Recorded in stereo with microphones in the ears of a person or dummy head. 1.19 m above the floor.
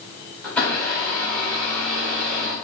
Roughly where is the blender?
Centre.